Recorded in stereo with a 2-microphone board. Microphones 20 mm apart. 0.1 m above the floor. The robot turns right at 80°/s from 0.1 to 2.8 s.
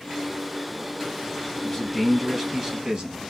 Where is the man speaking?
145° left, 2 m; by 3.2 s 120° right, 2 m.